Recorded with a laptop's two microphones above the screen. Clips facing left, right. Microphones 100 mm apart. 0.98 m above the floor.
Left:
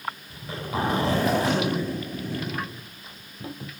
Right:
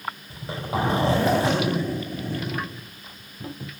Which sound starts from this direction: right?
A zipper, at 0.3 s.